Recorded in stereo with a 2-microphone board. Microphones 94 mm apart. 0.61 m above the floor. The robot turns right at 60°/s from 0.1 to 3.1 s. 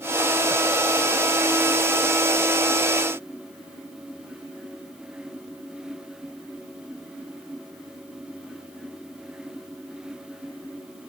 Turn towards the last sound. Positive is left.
No sound to turn to.